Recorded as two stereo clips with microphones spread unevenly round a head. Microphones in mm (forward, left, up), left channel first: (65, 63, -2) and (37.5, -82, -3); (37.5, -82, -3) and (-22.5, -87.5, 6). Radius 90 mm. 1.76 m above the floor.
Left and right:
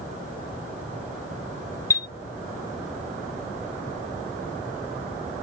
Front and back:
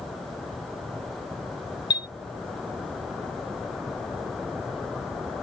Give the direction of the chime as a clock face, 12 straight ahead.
12 o'clock.